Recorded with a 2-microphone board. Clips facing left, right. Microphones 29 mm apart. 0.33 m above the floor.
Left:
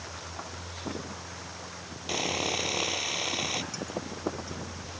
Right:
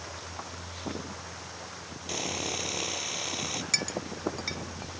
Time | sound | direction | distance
2.1 | sawing | 15° left (ahead or behind) | ?
3.7 | a clink | 85° right | ?